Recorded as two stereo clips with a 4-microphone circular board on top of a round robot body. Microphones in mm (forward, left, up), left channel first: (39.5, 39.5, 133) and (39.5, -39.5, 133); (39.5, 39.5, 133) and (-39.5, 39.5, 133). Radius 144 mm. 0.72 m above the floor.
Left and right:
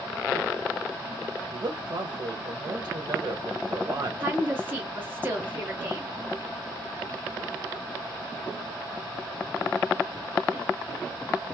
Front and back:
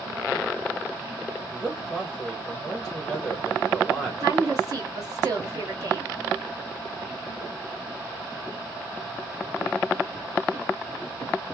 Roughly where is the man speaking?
Right.